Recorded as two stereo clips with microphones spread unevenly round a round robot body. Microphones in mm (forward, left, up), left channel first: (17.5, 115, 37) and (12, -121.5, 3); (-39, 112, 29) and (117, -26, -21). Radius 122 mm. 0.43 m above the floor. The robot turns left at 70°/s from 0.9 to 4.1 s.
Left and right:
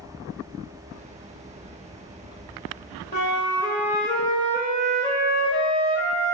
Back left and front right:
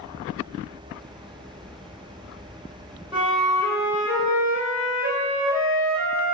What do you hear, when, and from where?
3.1 s a flute: 35° left, 1.7 m; by 6.3 s 35° right, 1.7 m